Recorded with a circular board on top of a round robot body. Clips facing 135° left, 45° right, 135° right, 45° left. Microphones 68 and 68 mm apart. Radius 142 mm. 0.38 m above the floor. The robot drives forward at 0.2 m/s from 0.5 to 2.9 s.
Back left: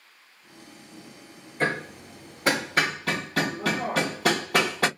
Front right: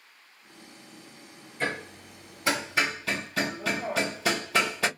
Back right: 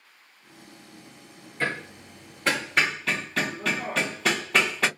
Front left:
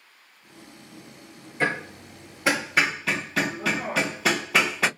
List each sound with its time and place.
1.6 s hammering: 115° left, 0.9 m; by 4.9 s 130° left, 1.1 m